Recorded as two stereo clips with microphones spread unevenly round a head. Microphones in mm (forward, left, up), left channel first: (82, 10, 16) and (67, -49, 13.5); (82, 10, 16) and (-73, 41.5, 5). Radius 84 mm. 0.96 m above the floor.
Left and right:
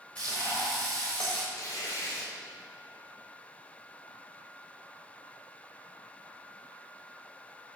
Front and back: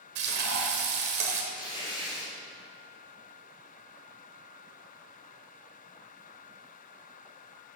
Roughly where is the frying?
Behind left.